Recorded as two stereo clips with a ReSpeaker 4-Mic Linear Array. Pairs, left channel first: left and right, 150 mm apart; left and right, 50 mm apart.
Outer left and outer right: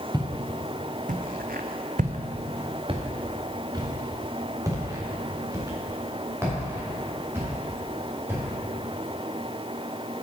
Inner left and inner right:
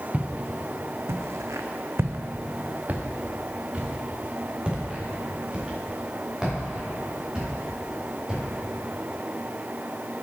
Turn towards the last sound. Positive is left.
turn(degrees=-15)  # may be behind; listen again after turning